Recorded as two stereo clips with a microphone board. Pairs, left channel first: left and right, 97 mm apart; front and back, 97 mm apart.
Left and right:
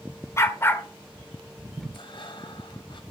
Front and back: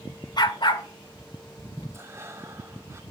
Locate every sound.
0.4 s a dog barking: 35° left, 2 m; by 1.8 s straight ahead, 1.9 m
1.9 s breathing: 120° left, 2 m